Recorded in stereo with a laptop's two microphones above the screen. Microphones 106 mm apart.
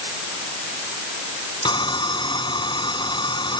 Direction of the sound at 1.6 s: 45° left (ahead or behind).